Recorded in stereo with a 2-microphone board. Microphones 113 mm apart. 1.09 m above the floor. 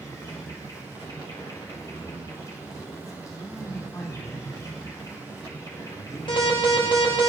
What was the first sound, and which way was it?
An insect, 30° left (ahead or behind).